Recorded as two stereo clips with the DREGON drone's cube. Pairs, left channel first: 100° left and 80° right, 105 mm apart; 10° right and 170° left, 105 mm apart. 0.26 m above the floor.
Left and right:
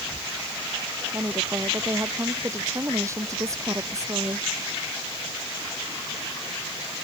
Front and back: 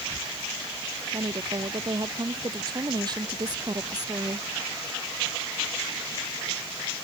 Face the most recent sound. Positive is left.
turn(degrees=-140)